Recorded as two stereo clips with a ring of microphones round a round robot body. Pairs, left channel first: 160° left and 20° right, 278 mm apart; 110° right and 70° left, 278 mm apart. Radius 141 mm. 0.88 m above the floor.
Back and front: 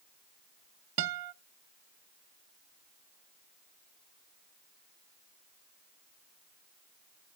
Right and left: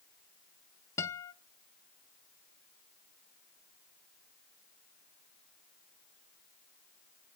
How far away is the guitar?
About 0.6 m.